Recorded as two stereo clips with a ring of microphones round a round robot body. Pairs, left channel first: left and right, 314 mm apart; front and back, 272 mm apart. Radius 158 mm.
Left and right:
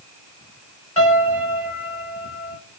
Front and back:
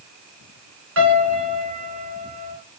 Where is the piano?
170° left, 2 m.